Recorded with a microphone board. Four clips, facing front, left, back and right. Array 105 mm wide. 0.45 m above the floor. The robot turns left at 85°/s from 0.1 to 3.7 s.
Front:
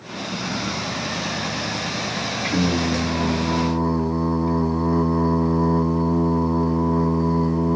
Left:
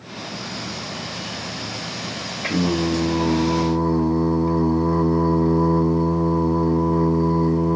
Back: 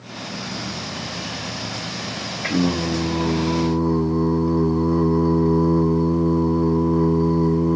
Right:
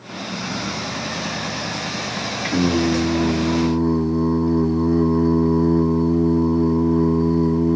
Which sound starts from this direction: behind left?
Singing, at 2.4 s.